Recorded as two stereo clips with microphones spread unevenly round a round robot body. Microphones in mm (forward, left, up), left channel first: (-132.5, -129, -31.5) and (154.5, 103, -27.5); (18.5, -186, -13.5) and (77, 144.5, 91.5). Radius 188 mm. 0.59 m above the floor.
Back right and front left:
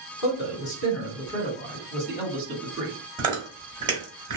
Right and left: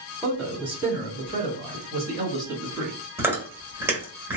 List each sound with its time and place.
0.2 s a man speaking: 175° right, 1.5 m; by 2.9 s 35° left, 1.1 m
3.2 s chewing: 30° right, 1.2 m